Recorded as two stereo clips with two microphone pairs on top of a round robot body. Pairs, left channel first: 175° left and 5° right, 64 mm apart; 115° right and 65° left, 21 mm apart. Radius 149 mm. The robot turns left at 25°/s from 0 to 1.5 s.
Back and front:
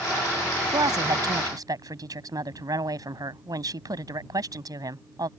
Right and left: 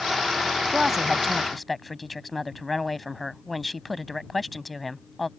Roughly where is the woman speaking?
Ahead.